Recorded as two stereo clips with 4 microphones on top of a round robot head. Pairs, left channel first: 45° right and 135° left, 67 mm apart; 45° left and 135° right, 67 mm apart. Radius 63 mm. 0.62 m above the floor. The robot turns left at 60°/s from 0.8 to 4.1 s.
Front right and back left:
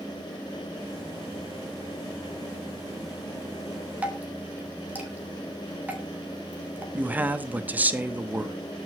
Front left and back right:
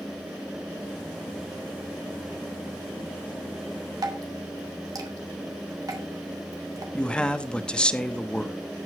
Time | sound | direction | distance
4.0 | dripping | 155° right | 3 m
6.9 | a man speaking | 105° left | 1.2 m